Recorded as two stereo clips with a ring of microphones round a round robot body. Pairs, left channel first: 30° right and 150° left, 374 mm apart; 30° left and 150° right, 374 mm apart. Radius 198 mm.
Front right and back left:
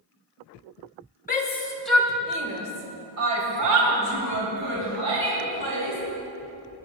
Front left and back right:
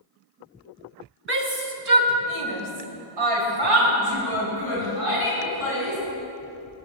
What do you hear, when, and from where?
1.3 s a shout: 95° right, 2 m; by 6.0 s 170° left, 5.5 m